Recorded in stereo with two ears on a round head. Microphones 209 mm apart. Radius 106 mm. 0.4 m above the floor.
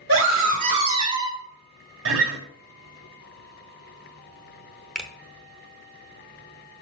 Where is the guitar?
60° right (ahead or behind), 1.3 m.